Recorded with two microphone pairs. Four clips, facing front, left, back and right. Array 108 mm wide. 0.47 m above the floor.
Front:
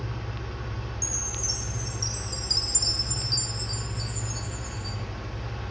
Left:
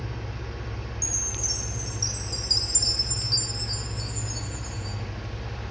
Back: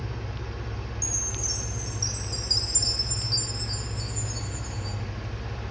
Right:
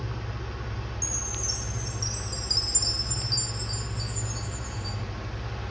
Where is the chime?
20° left, 1.2 m.